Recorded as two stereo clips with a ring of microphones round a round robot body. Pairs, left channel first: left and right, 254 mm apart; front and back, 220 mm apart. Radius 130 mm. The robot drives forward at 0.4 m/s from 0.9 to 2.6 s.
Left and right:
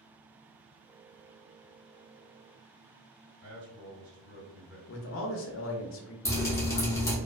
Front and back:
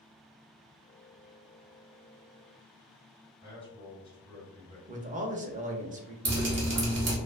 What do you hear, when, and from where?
3.4 s a man speaking: 120° right, 1.7 m
4.9 s a man speaking: 125° left, 0.5 m
6.2 s dripping: 170° left, 0.8 m